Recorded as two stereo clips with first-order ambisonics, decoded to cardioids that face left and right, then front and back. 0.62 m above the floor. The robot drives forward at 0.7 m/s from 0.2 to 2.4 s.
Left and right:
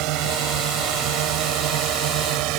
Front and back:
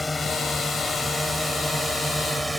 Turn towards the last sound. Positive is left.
turn(degrees=-95)